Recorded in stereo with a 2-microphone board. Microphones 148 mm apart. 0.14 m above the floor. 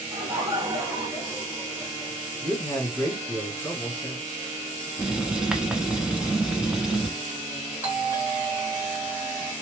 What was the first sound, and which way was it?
Laughter, 25° right (ahead or behind).